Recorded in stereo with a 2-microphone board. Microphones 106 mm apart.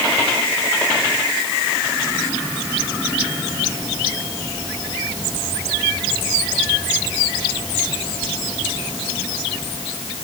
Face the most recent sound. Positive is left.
No sound to turn to.